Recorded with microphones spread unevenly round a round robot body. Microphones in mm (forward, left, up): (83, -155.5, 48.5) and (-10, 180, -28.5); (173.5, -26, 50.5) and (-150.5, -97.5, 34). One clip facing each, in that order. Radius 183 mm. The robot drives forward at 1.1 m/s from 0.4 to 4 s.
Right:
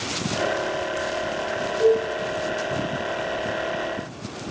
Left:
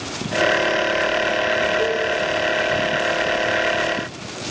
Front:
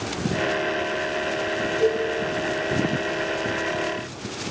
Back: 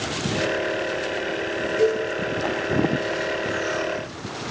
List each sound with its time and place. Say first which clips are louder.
1.8 s a cowbell: right 8 dB, back 1 dB; 150° right, 9.5 m